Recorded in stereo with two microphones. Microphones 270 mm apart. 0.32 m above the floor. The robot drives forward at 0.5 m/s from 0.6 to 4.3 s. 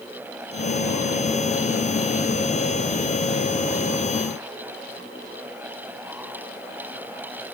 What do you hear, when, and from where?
Only background noise.